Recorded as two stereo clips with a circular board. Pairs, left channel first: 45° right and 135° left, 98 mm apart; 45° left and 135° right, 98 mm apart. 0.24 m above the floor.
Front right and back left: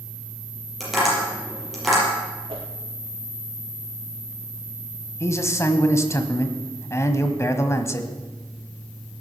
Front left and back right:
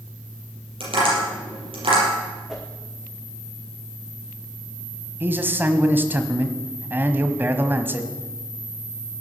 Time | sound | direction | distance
0.8 | tapping | 135° right | 6 m
2.5 | a whoosh | 130° left | 3.5 m
5.2 | a man speaking | 80° right | 1.2 m